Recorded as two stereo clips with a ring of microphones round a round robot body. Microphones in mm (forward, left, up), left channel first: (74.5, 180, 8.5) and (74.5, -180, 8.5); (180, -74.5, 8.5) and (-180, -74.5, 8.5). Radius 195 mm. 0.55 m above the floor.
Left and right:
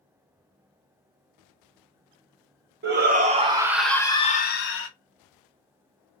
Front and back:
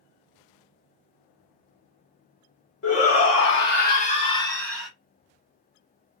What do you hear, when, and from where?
2.8 s a shout: 35° right, 1.0 m; by 4.9 s 90° left, 0.8 m